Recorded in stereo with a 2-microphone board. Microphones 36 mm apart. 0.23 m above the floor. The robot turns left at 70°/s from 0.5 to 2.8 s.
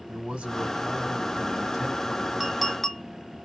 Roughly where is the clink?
Centre.